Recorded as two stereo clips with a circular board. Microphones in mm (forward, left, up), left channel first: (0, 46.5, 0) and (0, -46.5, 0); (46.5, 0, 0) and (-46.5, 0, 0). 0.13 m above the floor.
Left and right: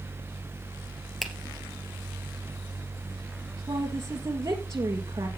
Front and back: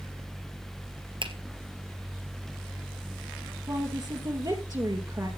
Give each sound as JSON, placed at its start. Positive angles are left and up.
{"t": 1.2, "sound": "a finger snap", "azimuth_deg": 180, "distance_m": 2.5}
{"t": 3.7, "sound": "a woman speaking", "azimuth_deg": -145, "distance_m": 3.0}